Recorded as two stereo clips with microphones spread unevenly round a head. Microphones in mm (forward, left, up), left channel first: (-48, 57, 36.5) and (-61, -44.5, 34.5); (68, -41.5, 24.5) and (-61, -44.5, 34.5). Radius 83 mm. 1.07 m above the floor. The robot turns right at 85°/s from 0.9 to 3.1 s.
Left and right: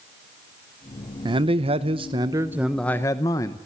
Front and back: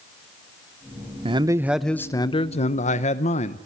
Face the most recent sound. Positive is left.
turn(degrees=25)